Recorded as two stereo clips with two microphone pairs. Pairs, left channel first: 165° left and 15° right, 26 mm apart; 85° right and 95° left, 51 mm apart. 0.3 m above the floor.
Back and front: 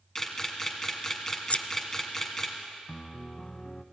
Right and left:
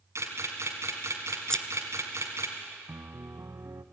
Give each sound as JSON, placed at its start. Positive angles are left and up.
{"t": 0.1, "sound": "a camera shutter", "azimuth_deg": 95, "distance_m": 3.0}
{"t": 1.5, "sound": "scissors", "azimuth_deg": -165, "distance_m": 0.5}
{"t": 2.9, "sound": "a piano", "azimuth_deg": 95, "distance_m": 0.7}